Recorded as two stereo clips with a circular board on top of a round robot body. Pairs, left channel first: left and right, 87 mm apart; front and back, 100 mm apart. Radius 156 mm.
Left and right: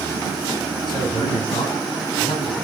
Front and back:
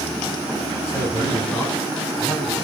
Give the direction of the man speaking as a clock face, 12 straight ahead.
10 o'clock.